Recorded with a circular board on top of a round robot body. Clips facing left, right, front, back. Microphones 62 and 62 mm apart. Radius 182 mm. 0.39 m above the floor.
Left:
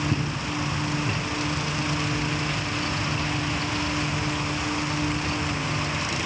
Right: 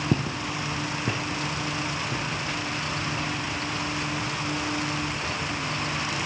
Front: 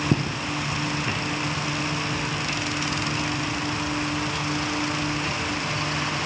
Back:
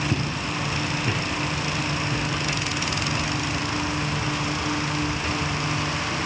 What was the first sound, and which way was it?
Footsteps, 55° right.